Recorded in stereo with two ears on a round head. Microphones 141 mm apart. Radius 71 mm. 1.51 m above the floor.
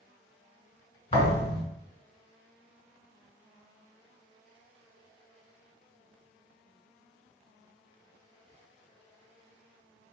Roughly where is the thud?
Left.